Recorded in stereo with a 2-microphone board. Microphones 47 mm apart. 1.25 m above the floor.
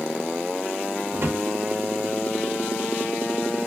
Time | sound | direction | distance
1.1 | a drawer | 55° right (ahead or behind) | 1.0 m